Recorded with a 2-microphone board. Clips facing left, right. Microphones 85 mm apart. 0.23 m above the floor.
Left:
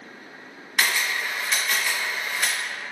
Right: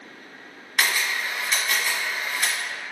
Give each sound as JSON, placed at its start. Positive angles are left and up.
{"t": 0.8, "sound": "a camera shutter", "side_deg": 5, "distance_m": 1.2}